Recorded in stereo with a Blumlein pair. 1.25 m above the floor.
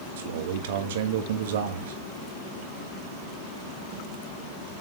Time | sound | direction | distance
0.2 | a man speaking | 55° right | 1.4 m